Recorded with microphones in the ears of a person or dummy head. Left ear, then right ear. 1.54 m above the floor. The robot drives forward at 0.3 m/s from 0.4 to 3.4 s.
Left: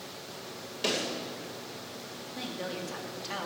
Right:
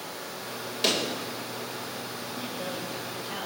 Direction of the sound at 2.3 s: 75° left (ahead or behind).